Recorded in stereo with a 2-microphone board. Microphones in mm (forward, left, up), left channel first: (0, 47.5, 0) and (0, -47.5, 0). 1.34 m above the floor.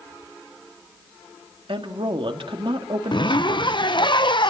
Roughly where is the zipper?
Left.